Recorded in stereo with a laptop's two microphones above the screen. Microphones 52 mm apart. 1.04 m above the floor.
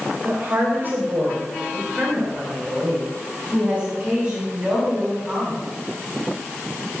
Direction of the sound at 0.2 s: 50° right (ahead or behind).